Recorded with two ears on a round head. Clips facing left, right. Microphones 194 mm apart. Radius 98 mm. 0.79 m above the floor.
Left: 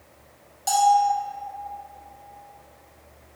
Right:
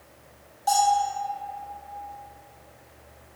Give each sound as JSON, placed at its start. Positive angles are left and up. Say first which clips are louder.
{"t": 0.7, "sound": "a bell", "louder": "left 3 dB", "side_deg": 30, "distance_m": 0.6}